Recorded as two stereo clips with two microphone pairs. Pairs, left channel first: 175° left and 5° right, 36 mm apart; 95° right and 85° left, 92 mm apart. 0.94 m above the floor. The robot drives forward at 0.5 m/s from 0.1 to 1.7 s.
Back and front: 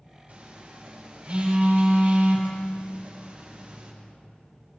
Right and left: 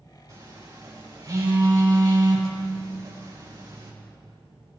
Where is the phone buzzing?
35° left, 5 m; by 3.9 s 40° left, 4.5 m.